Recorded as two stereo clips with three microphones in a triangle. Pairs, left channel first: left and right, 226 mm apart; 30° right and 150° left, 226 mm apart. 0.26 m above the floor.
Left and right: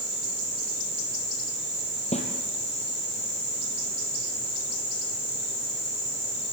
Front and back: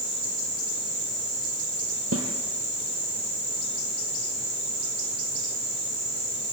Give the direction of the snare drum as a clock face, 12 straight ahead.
7 o'clock.